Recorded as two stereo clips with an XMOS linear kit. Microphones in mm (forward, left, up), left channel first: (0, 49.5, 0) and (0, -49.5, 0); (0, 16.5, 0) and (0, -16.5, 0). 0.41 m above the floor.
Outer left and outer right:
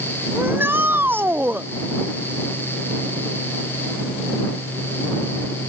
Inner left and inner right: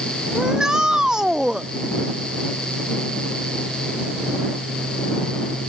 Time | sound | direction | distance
0.3 | a shout | 20° right (ahead or behind) | ?